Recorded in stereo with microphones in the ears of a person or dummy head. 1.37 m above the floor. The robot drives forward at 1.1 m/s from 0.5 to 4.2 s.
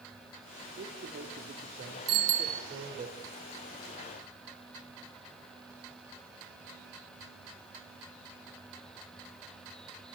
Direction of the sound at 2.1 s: 80° right.